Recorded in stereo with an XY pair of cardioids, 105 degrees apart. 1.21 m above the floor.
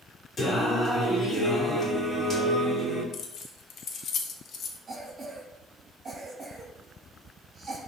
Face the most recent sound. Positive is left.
turn(degrees=-30)